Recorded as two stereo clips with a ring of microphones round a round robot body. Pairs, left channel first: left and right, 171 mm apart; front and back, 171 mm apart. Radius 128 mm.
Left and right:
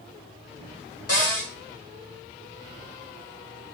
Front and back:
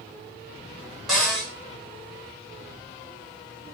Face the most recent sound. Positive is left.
turn(degrees=95)